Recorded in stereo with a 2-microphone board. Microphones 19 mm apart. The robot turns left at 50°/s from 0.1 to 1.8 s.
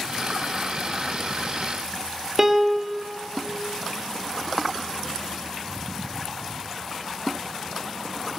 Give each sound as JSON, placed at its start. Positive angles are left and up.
{"t": 2.4, "sound": "a piano", "side_deg": -20, "distance_m": 0.5}